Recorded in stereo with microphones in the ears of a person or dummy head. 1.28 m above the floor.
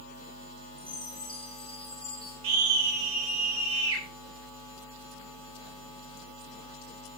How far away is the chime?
About 5 m.